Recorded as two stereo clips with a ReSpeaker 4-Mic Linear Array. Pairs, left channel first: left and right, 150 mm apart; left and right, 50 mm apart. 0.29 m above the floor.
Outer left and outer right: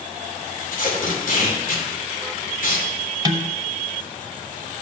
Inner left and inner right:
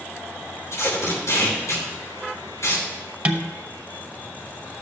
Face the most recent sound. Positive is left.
turn(degrees=-30)  # may be behind; listen again after turning